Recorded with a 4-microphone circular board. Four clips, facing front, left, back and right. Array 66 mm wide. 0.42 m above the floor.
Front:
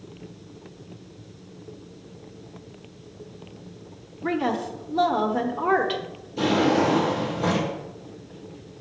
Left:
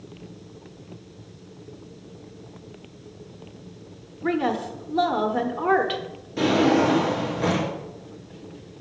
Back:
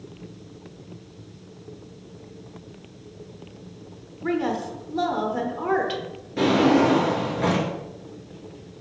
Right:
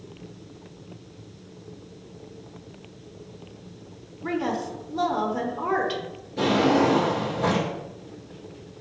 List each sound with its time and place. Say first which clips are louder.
4.2 s a woman speaking: left 3 dB, even; 70° left, 0.8 m
6.4 s a drawer: left 1 dB, back 3 dB; 160° left, 3.5 m